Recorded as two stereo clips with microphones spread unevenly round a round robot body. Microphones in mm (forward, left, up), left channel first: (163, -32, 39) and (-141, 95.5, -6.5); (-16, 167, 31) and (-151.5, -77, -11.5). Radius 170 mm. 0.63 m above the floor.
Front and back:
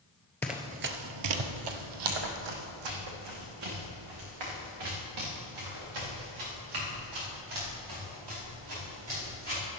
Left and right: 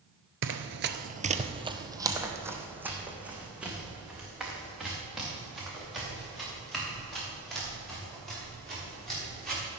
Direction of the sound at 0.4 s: 90° right.